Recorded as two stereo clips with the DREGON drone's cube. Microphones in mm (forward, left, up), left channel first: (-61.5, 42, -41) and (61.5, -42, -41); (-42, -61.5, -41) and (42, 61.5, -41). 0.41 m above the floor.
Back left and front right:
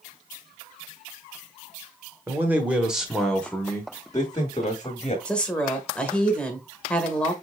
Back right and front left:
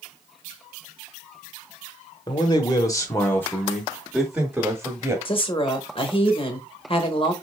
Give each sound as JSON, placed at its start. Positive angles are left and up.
{"t": 2.3, "sound": "a man speaking", "azimuth_deg": -95, "distance_m": 1.1}
{"t": 5.2, "sound": "a woman speaking", "azimuth_deg": -135, "distance_m": 1.0}